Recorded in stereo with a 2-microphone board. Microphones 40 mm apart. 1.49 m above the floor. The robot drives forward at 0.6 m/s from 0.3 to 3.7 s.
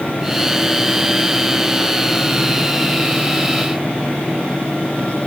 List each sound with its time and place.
Only background noise.